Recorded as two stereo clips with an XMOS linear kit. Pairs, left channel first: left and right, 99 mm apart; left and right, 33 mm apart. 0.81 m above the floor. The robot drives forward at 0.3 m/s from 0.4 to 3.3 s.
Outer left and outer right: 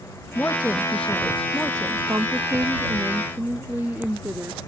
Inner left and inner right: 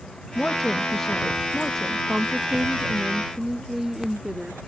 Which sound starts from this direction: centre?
A woman speaking, at 0.3 s.